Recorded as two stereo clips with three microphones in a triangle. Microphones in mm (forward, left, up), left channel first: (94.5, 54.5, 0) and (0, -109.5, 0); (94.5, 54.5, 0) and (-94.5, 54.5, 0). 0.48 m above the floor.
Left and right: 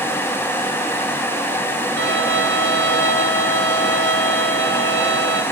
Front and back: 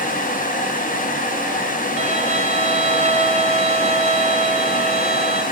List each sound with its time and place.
2.0 s a violin: 125° right, 2.5 m